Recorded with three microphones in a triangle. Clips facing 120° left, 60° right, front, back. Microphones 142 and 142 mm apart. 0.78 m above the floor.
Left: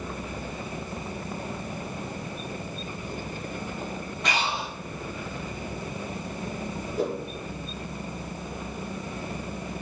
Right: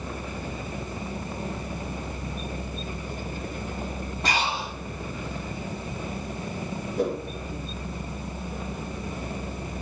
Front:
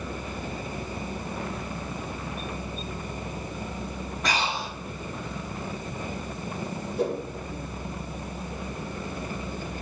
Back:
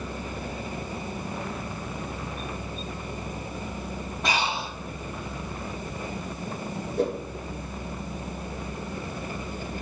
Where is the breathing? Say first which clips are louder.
Right 1 dB, back 1 dB; 115° right, 3 m.